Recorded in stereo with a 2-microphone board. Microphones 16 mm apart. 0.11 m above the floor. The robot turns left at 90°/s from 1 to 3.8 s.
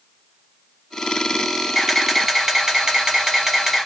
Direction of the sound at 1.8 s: 10° left.